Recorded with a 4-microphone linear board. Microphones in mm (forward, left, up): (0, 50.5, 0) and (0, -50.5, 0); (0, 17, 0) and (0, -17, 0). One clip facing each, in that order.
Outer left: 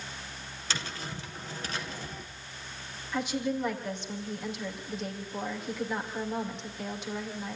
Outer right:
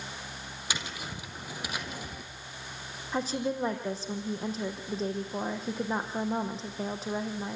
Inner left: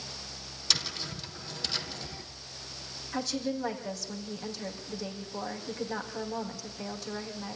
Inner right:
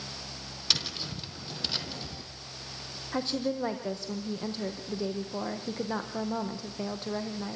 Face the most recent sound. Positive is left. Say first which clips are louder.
# even, inner right 2 dB
turn(degrees=-35)  # may be behind; listen again after turning